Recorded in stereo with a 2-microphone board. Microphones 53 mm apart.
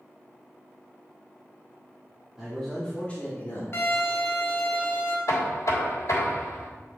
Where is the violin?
55° left (ahead or behind), 1.8 m.